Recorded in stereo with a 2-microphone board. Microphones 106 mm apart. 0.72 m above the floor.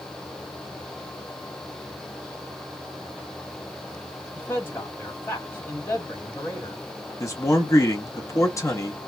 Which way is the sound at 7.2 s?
25° left (ahead or behind).